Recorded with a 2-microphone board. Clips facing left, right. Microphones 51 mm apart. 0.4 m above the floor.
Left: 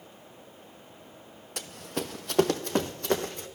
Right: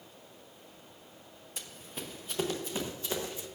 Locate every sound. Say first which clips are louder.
1.6 s running footsteps: left 10 dB; 65° left (ahead or behind), 1.0 m; by 3.5 s 55° left (ahead or behind), 1.5 m